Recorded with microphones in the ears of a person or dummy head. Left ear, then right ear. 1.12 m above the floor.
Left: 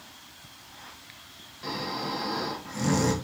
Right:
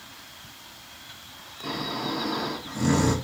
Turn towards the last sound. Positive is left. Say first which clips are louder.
# right 2 dB
turn(degrees=75)  # may be behind; listen again after turning